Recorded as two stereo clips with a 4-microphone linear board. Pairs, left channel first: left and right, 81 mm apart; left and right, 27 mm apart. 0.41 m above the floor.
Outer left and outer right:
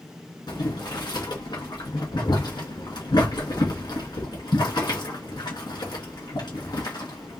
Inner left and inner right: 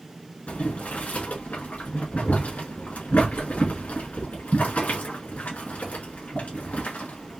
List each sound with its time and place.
0.5 s boiling: 60° left (ahead or behind), 2 m